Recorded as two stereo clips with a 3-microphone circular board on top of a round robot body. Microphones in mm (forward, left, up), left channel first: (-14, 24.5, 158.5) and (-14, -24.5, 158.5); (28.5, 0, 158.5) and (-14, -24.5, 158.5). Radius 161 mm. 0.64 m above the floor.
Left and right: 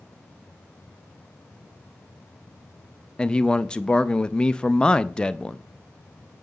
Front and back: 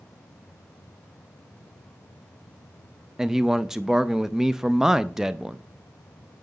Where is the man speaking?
140° left, 0.5 m.